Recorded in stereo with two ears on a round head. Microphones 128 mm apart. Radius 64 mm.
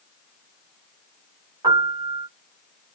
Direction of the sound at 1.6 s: 35° right (ahead or behind).